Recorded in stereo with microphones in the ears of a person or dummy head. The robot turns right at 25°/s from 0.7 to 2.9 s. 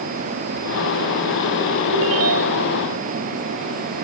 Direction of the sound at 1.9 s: 80° right.